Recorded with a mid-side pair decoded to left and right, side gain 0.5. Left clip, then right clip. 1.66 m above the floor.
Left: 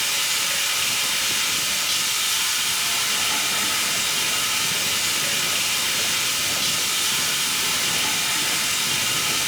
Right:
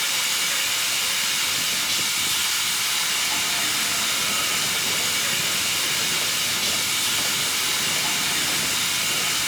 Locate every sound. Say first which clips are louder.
0.0 s running water: left 1 dB; 45° left, 1.3 m